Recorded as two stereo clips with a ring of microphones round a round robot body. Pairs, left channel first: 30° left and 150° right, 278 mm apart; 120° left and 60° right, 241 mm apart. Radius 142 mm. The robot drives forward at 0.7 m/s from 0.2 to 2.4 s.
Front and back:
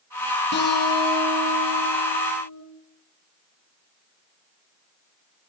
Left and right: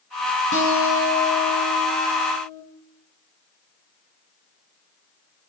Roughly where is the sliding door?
No sliding door in this recording.